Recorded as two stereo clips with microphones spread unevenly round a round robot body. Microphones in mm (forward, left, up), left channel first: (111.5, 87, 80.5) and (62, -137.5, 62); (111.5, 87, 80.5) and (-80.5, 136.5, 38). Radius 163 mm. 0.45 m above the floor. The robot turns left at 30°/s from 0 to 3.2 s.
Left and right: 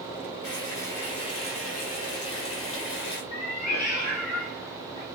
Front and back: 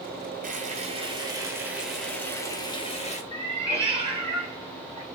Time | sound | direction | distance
0.4 | frying | 125° left | 1.8 m
3.3 | a cat meowing | 105° left | 3 m